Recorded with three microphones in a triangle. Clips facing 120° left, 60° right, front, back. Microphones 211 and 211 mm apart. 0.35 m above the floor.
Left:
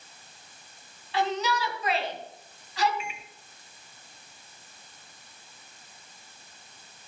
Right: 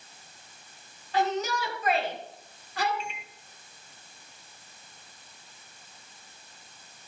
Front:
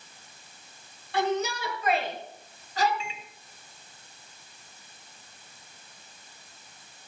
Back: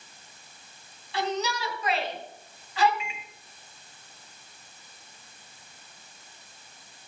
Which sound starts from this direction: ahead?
A shout, at 1.1 s.